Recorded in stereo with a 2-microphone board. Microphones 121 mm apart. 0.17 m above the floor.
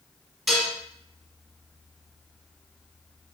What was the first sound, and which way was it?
Dishes clattering, centre (ahead or behind).